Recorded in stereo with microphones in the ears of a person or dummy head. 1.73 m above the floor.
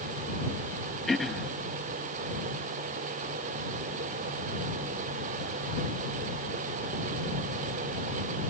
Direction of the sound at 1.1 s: 5° left (ahead or behind).